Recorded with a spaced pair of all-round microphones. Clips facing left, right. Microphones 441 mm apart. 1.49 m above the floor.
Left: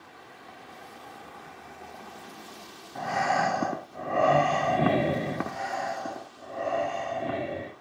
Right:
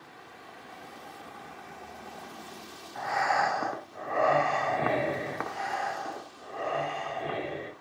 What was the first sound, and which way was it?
Breathing, 50° left (ahead or behind).